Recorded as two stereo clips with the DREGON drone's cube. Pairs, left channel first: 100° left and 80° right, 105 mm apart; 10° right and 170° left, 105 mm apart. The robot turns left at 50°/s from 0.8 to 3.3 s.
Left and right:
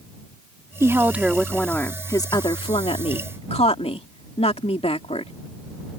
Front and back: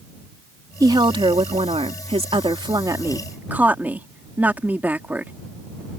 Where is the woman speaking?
140° right; by 5.3 s 95° left.